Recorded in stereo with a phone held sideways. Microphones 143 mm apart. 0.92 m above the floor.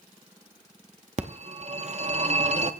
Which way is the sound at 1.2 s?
50° right (ahead or behind).